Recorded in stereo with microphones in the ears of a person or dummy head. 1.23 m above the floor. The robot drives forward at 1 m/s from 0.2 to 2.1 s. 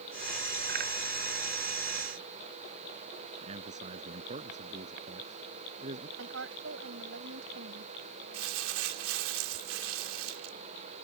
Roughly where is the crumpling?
Right.